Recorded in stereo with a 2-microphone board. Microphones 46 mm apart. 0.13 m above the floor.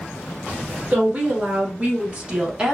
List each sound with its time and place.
0.9 s a woman speaking: 35° right (ahead or behind), 1.7 m; by 2.7 s 20° right (ahead or behind), 1.0 m